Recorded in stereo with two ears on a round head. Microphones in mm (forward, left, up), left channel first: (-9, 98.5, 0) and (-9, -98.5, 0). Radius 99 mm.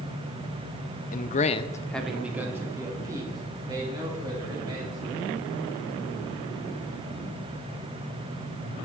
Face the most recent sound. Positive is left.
turn(degrees=-20)  # may be behind; listen again after turning